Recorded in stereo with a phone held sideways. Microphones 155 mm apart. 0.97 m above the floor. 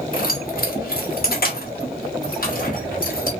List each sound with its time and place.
0.1 s keys jangling: 70° left (ahead or behind), 1.3 m; by 3.3 s 65° left (ahead or behind), 2.5 m